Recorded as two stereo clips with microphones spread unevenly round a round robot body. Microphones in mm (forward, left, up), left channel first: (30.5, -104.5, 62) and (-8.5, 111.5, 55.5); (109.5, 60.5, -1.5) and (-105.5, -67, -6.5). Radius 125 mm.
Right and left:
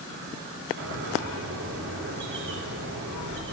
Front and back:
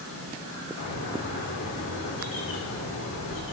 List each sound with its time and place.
0.8 s a bird: 70° left, 1.7 m